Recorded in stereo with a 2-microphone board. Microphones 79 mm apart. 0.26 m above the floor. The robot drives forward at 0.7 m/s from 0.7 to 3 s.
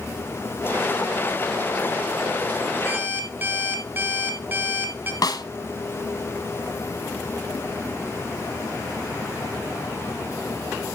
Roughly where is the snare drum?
Left.